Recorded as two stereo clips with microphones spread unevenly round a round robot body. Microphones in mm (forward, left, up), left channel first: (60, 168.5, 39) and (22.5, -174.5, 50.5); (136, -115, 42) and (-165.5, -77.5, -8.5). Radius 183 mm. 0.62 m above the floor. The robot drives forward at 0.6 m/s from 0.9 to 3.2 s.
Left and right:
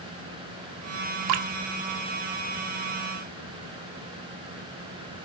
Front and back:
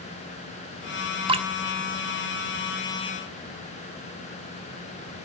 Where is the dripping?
120° right, 1.1 m; by 1.5 s 125° right, 1.2 m.